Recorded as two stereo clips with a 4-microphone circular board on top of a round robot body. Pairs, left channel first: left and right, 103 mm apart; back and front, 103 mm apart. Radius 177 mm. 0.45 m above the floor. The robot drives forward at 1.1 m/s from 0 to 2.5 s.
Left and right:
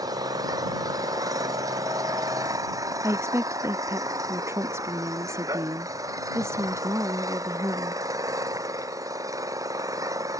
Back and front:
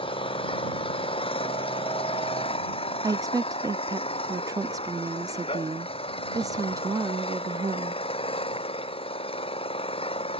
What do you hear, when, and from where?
0.0 s an engine running: 145° right; by 10.4 s 150° right
3.0 s a woman speaking: 40° right